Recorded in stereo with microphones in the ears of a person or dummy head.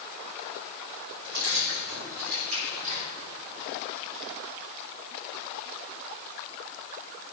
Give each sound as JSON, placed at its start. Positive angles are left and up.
{"t": 1.2, "sound": "keys jangling", "side_deg": -55, "distance_m": 5.5}